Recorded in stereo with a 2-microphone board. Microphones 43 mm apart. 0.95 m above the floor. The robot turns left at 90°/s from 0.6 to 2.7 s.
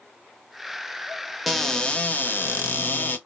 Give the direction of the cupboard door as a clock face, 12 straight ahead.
6 o'clock.